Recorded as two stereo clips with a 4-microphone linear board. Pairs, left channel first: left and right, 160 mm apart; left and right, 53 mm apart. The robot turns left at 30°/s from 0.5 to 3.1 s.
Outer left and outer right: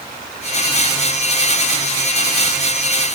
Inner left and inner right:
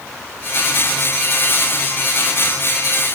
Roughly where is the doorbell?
No doorbell in this recording.